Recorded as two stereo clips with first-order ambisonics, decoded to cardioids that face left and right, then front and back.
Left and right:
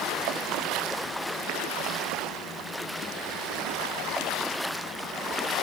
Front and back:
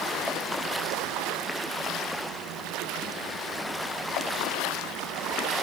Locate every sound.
Only background noise.